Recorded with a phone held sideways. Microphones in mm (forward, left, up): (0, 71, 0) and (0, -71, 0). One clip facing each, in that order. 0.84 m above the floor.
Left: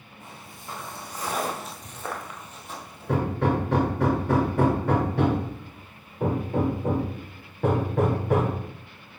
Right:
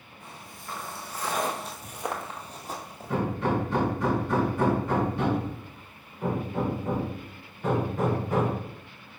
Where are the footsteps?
25° left (ahead or behind), 2.5 m; by 3.2 s 45° right (ahead or behind), 1.6 m.